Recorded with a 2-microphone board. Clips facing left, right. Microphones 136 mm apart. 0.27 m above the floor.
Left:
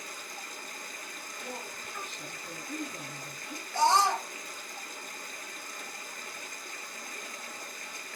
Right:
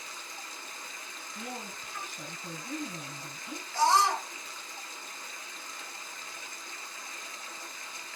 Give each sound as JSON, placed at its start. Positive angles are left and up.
{"t": 0.0, "sound": "running water", "side_deg": 55, "distance_m": 0.7}
{"t": 1.4, "sound": "a woman speaking", "side_deg": -45, "distance_m": 3.0}
{"t": 3.7, "sound": "a scream", "side_deg": 25, "distance_m": 1.4}